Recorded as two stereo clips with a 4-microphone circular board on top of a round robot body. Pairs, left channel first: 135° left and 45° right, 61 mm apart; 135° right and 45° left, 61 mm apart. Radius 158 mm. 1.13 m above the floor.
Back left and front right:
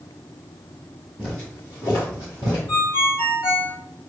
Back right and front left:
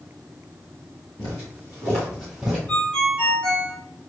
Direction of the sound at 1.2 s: 155° right.